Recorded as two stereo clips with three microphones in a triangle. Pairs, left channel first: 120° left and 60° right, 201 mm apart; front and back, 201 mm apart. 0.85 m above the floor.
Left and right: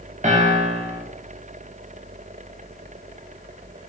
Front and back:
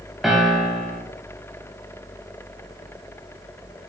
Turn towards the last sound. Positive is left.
turn(degrees=-90)